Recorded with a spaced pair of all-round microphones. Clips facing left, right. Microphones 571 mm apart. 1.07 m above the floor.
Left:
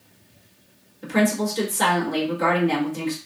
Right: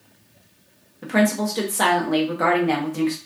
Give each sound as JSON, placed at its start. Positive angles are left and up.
{"t": 1.0, "sound": "a woman speaking", "side_deg": -75, "distance_m": 1.0}